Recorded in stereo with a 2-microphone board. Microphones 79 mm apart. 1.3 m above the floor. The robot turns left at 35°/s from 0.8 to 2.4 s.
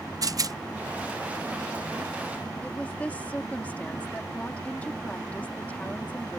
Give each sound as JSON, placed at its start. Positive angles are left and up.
{"t": 0.2, "sound": "a rattle", "side_deg": -50}
{"t": 2.6, "sound": "a woman speaking", "side_deg": 20}